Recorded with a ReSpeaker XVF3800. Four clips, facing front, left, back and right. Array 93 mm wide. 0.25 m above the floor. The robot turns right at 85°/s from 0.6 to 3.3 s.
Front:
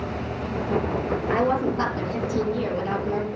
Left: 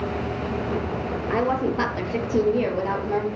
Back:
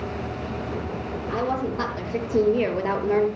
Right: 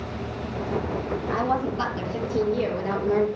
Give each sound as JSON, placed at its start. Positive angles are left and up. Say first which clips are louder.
{"t": 1.3, "sound": "a woman speaking", "louder": "left 3 dB, front 3 dB", "azimuth_deg": 40, "distance_m": 5.5}